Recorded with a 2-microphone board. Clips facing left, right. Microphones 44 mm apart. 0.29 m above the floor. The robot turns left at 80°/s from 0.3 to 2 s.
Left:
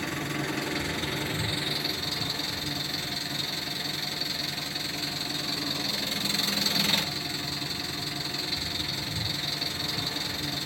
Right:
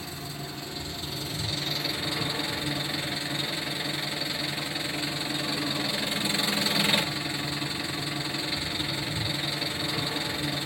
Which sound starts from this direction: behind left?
An engine running, at 0.0 s.